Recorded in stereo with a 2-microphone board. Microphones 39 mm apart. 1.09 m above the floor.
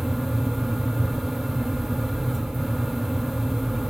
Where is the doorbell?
No doorbell in this recording.